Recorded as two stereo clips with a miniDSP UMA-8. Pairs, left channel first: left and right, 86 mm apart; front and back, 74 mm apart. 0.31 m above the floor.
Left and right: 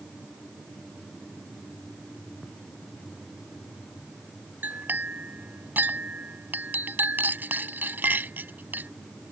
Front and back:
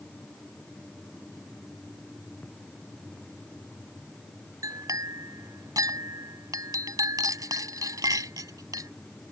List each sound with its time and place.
4.6 s a clink: 155° right